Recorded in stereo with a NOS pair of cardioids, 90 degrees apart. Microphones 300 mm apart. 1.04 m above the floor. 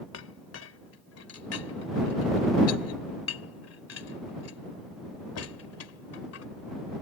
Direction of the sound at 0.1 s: 55° left.